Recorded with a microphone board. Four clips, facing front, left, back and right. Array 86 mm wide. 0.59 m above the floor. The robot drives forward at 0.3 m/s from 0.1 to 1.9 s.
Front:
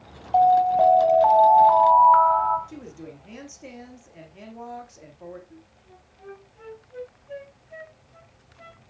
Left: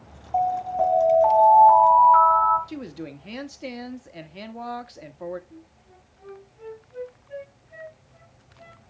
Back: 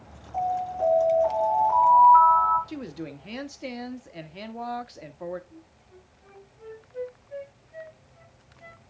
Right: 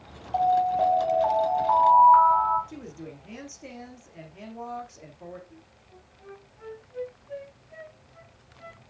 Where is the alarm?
Straight ahead, 3 m.